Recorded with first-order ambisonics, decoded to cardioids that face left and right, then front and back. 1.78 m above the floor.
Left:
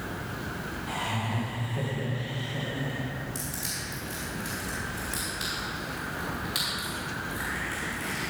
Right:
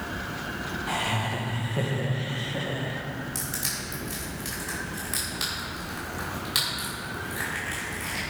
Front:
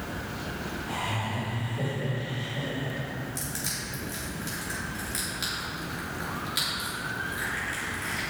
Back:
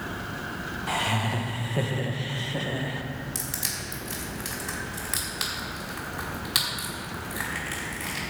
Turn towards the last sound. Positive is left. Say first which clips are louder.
# right 5 dB, back 3 dB
turn(degrees=-160)